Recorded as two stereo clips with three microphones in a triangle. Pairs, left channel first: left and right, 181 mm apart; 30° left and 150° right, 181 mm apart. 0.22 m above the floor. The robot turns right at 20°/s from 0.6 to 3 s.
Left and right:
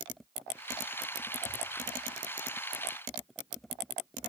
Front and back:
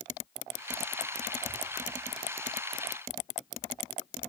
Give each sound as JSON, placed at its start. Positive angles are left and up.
{"t": 1.4, "sound": "a whoosh", "azimuth_deg": 110, "distance_m": 2.5}